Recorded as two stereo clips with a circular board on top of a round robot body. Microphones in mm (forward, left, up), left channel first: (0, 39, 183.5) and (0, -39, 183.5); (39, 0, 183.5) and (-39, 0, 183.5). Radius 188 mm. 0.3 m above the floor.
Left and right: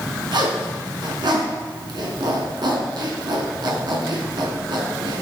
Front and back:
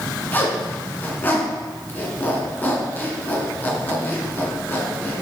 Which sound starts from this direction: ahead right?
A zipper, at 0.3 s.